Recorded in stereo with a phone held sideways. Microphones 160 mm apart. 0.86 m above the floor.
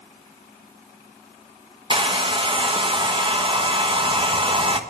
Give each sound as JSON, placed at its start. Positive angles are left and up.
{"t": 1.9, "sound": "a hair dryer", "side_deg": -30, "distance_m": 1.0}